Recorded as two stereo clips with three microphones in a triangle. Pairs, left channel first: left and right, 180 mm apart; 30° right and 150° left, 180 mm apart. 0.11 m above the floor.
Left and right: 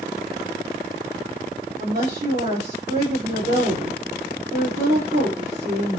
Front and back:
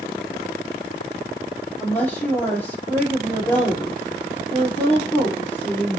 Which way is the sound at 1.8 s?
110° right.